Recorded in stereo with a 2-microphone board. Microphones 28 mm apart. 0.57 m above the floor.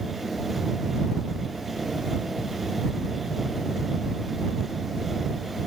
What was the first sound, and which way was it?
Only background noise.